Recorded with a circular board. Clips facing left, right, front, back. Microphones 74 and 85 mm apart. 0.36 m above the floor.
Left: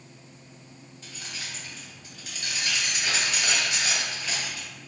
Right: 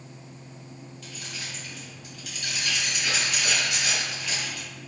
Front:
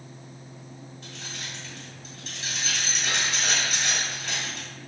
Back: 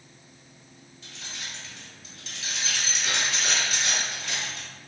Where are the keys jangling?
40° left, 1.7 m.